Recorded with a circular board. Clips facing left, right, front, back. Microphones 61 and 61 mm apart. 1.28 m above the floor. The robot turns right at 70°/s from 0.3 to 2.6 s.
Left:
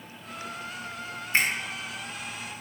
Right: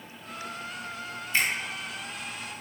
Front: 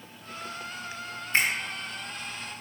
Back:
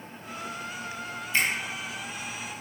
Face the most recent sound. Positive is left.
turn(degrees=130)